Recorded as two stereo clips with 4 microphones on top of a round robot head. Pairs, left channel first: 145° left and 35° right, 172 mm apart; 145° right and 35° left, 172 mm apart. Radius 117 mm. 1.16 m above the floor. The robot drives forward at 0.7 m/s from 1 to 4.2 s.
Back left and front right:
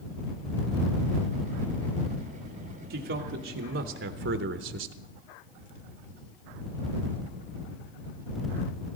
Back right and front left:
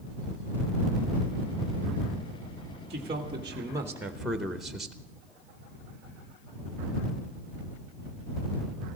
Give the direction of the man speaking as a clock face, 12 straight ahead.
1 o'clock.